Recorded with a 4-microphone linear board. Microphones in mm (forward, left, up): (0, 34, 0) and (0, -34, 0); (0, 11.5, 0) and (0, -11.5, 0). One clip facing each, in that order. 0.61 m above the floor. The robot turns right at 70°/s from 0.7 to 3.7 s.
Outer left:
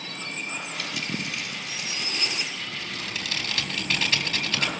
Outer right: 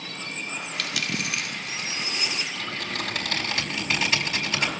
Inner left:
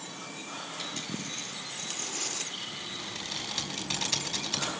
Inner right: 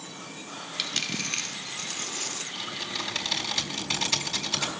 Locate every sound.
0.8 s a dropped coin: 110° right, 0.6 m; by 2.5 s 5° left, 0.6 m
2.5 s typing on a keyboard: 90° right, 4.5 m; by 4.7 s 10° right, 4.5 m